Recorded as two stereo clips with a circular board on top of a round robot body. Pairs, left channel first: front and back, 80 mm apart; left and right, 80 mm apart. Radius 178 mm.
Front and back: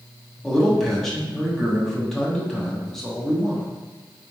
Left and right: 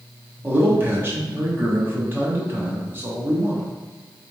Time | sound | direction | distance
0.4 | a man speaking | 80° right | 1.2 m